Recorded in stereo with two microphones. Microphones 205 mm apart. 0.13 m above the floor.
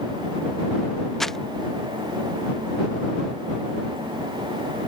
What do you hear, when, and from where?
1.2 s crumpling: centre (ahead or behind)